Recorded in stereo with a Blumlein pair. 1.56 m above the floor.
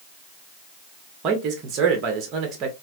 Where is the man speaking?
30° right, 1.3 m.